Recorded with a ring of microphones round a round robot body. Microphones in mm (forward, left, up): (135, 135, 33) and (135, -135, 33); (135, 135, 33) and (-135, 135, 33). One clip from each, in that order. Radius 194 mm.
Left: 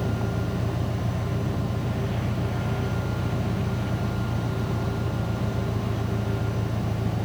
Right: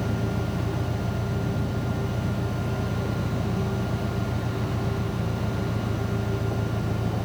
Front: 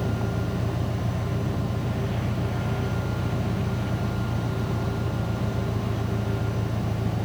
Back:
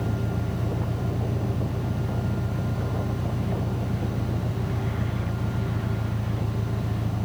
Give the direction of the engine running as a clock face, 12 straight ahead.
11 o'clock.